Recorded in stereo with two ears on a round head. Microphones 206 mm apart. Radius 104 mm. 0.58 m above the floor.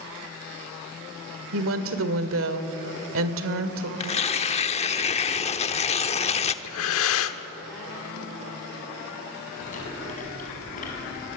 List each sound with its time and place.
1.5 s a woman speaking: 65° right (ahead or behind), 1.9 m
4.0 s tearing paper: 30° left (ahead or behind), 0.9 m
6.6 s breathing: 65° left (ahead or behind), 1.1 m
9.6 s chewing: 35° left (ahead or behind), 6 m